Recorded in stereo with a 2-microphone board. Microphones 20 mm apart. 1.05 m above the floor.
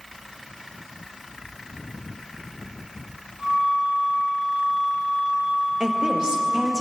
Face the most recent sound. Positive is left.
turn(degrees=-40)  # may be behind; listen again after turning